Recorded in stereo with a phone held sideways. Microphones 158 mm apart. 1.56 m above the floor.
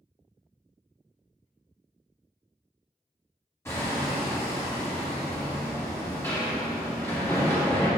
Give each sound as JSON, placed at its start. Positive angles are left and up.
{"t": 3.6, "sound": "hammering", "side_deg": 15, "distance_m": 1.7}